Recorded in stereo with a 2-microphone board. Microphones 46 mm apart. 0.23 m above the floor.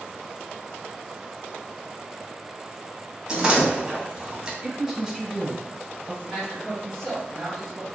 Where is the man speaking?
Centre (ahead or behind), 1.4 m.